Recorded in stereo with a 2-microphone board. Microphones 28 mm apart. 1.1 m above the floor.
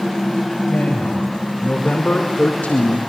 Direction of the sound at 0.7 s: 50° left (ahead or behind).